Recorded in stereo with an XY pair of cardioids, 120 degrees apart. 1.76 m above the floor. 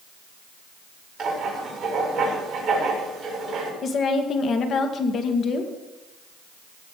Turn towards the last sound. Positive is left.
turn(degrees=50)